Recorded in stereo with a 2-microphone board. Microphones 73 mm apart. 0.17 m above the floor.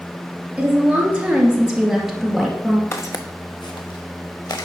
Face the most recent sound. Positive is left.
turn(degrees=70)  # may be behind; listen again after turning